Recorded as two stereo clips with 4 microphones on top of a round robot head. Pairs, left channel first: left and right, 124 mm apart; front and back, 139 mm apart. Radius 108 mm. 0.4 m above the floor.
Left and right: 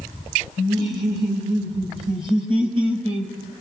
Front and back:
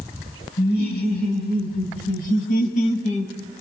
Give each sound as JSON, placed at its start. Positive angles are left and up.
{"t": 0.6, "sound": "laughter", "azimuth_deg": -20, "distance_m": 5.0}